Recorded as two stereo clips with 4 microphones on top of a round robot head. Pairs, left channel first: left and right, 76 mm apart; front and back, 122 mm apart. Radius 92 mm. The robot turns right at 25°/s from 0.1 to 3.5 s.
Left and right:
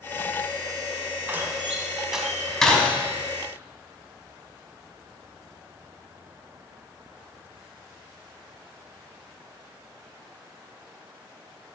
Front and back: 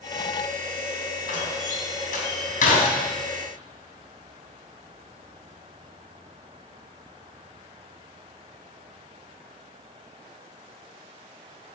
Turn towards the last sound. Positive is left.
turn(degrees=30)